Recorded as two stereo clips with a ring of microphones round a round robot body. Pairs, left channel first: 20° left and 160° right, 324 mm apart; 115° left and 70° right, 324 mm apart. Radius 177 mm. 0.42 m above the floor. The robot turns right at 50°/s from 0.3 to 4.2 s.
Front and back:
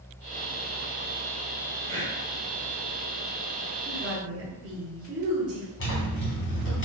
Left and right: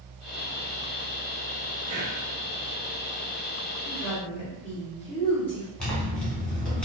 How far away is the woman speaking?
About 1.5 m.